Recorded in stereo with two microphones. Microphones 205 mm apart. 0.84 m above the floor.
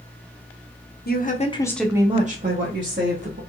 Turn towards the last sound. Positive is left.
turn(degrees=-70)  # may be behind; listen again after turning